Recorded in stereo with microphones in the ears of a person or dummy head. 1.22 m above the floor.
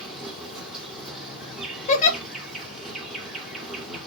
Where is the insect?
5° right (ahead or behind), 1.3 m.